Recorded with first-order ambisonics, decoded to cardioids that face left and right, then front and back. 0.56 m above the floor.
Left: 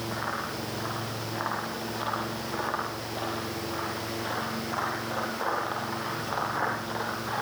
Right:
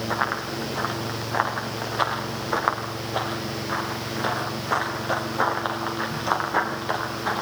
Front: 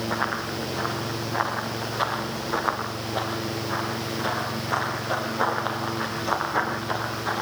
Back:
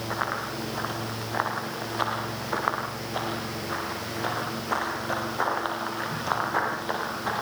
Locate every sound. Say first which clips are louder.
0.1 s running footsteps: right 8 dB, front 1 dB; 100° right, 9 m; by 7.4 s 110° right, 14 m